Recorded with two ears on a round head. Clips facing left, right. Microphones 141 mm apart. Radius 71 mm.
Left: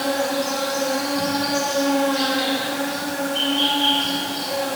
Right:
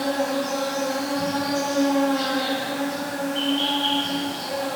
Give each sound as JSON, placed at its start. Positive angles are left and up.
{"t": 0.0, "sound": "an insect", "side_deg": 45, "distance_m": 2.5}